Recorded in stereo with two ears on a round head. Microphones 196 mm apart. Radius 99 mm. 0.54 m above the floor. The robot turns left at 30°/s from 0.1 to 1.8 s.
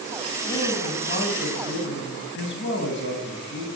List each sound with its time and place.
0.5 s a man speaking: 160° left, 4 m; by 3.7 s 120° left, 4 m